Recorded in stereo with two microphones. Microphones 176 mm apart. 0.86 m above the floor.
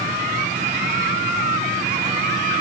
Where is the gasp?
I don't hear a gasp.